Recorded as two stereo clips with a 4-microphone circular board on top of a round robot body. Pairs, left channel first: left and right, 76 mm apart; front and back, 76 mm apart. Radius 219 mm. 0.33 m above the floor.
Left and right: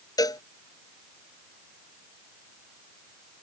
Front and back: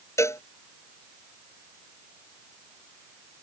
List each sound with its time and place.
0.2 s a cowbell: 55° left